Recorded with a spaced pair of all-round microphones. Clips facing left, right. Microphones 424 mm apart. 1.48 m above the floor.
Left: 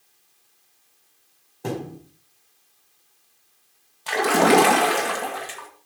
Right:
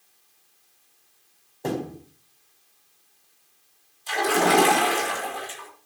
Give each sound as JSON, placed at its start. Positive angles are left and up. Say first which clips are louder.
{"t": 1.6, "sound": "a thud", "louder": "right 1 dB", "side_deg": 20, "distance_m": 4.0}
{"t": 4.1, "sound": "a splash", "louder": "left 4 dB", "side_deg": 80, "distance_m": 2.5}